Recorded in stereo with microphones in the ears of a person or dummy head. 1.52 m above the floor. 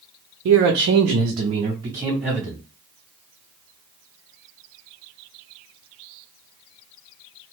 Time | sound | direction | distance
0.5 | a man speaking | 70° right (ahead or behind) | 0.7 m